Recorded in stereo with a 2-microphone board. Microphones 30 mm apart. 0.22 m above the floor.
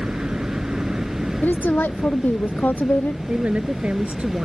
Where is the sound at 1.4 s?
80° left.